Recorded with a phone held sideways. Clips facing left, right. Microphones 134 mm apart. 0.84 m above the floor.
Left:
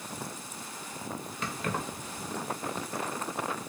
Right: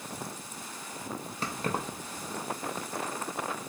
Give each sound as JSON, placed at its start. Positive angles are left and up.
{"t": 1.4, "sound": "keys jangling", "side_deg": -35, "distance_m": 0.6}